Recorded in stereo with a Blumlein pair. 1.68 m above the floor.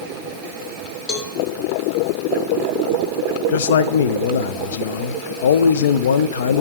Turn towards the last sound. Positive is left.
turn(degrees=60)